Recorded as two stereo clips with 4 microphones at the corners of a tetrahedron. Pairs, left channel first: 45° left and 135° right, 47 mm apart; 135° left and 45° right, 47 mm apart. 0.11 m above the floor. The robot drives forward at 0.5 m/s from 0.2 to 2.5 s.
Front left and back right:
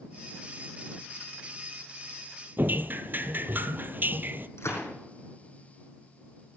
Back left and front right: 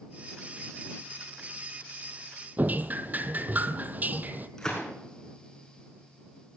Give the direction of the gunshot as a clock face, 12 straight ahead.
10 o'clock.